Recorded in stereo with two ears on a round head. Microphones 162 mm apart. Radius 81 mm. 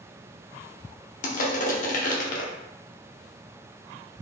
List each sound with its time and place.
1.2 s crushing: 45° left (ahead or behind), 0.8 m